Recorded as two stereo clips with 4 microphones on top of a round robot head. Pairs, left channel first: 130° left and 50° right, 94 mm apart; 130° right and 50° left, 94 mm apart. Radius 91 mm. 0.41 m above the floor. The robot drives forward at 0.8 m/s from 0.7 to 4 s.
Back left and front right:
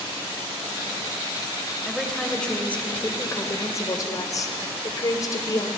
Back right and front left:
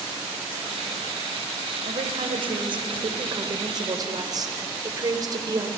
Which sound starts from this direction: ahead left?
A woman speaking, at 1.9 s.